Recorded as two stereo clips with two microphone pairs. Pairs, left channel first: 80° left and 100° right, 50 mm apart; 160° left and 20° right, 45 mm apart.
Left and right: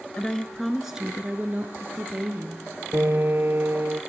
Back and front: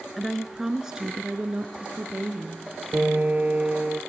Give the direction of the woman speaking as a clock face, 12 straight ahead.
9 o'clock.